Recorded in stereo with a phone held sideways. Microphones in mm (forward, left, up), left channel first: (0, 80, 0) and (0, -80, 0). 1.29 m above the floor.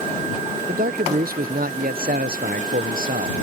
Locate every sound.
0.7 s a man speaking: 70° right (ahead or behind)